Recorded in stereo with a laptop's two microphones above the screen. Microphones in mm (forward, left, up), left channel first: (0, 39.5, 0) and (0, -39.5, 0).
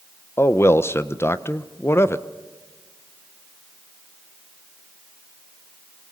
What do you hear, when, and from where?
0.4 s a man speaking: 30° left (ahead or behind), 0.7 m